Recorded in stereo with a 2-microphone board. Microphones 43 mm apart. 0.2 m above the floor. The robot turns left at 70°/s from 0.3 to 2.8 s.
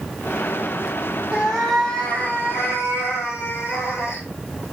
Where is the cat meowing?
155° right, 2 m; by 4.2 s 100° left, 2 m.